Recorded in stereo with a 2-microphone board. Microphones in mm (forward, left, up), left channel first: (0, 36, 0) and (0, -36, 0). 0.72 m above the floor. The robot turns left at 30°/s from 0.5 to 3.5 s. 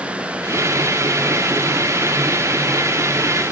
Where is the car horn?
I don't hear a car horn.